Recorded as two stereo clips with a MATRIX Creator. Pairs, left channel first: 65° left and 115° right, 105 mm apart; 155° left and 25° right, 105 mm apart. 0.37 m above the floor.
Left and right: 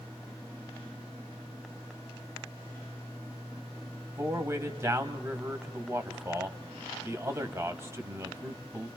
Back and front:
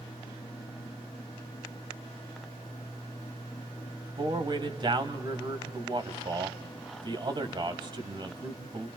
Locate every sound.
4.2 s a man speaking: 55° right, 1.8 m